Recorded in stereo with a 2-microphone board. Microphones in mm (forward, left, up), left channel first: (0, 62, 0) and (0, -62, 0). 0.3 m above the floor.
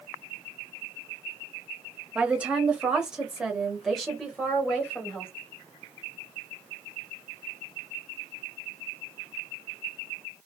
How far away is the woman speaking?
About 1.1 m.